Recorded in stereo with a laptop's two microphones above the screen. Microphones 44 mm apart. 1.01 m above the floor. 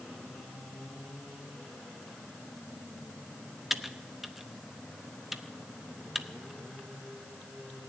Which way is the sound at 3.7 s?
5° right (ahead or behind).